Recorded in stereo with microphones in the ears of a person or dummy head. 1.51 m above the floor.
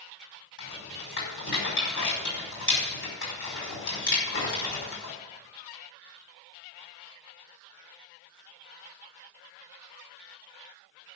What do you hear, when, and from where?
0.6 s a rattle: 70° left (ahead or behind), 5.5 m